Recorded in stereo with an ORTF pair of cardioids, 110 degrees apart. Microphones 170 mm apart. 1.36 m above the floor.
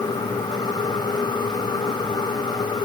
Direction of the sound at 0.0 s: 25° left.